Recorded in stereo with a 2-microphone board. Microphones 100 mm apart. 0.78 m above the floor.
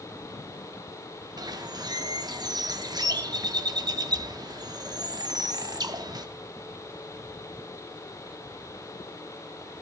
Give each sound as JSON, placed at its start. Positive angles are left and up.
{"t": 1.4, "sound": "a bird", "side_deg": -40, "distance_m": 0.6}